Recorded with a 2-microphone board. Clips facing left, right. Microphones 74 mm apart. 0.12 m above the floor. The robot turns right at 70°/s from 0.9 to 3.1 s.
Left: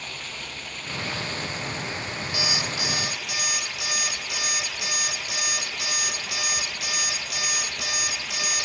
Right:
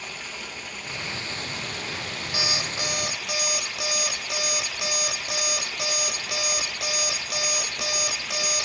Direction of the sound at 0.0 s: 170° right.